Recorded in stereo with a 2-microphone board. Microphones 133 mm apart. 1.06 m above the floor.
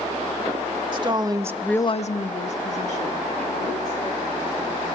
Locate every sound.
0.9 s a woman speaking: 35° right (ahead or behind), 1.4 m; by 5.0 s 55° left (ahead or behind), 5 m